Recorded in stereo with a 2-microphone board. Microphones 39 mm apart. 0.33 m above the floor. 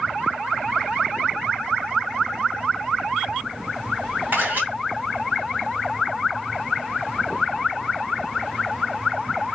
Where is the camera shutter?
50° right (ahead or behind), 2 m.